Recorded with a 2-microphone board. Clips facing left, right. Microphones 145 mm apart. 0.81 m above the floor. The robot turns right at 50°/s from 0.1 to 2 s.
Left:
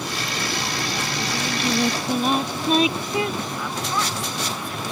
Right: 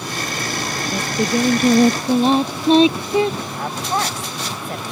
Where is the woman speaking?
50° right (ahead or behind).